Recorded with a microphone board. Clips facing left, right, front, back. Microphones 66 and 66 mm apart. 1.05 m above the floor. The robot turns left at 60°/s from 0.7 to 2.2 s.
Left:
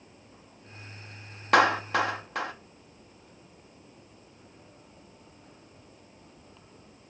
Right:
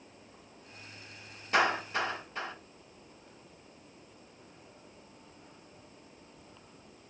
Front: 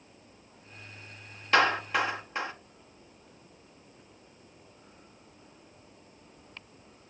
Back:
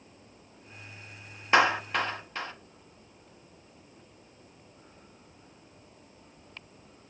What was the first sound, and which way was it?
A clap, 110° left.